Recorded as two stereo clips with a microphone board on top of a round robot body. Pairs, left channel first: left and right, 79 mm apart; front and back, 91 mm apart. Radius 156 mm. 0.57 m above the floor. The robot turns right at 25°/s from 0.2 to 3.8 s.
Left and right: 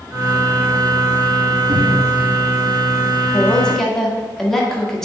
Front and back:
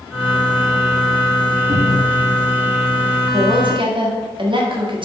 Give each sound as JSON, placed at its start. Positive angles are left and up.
{"t": 1.7, "sound": "a cupboard door", "azimuth_deg": -115, "distance_m": 1.9}
{"t": 3.3, "sound": "a woman speaking", "azimuth_deg": 160, "distance_m": 1.7}